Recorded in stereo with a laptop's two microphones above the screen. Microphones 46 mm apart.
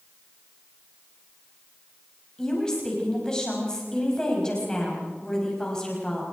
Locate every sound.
2.4 s a woman speaking: 15° left (ahead or behind), 5.5 m